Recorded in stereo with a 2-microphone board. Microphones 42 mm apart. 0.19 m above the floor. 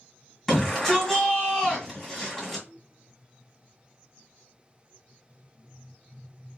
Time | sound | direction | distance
0.5 | a shout | 10° left (ahead or behind) | 1.4 m